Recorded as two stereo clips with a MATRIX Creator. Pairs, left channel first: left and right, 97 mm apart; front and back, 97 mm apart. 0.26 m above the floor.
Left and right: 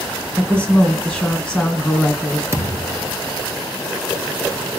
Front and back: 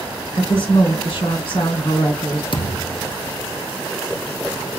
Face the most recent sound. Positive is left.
turn(degrees=-25)